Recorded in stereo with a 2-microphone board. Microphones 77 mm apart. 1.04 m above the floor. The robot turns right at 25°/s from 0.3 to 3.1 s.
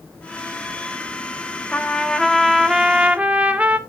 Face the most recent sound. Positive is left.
turn(degrees=-160)